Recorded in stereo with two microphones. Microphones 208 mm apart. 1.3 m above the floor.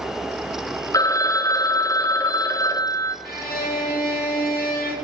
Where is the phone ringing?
15° left (ahead or behind), 0.5 m.